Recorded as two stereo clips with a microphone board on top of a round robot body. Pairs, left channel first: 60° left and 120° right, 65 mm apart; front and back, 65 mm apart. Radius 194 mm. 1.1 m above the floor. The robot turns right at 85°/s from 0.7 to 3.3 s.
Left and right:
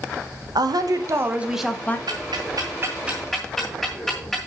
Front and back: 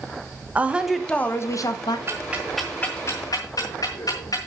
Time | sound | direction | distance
0.6 | a woman speaking | 110° right | 1.2 m
2.1 | ticking | 130° right | 1.5 m